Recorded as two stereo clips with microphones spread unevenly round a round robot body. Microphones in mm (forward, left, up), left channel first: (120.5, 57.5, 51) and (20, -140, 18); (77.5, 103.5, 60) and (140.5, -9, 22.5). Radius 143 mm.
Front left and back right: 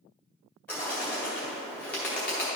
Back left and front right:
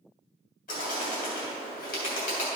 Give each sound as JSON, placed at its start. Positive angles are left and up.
{"t": 0.7, "sound": "a bird", "azimuth_deg": 150, "distance_m": 2.5}